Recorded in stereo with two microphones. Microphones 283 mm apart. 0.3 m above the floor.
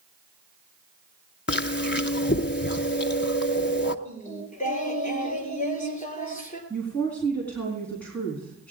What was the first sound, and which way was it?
Chewing, 40° left (ahead or behind).